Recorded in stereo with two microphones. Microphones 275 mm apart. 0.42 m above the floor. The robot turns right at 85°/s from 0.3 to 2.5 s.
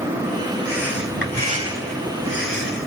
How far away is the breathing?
About 2 m.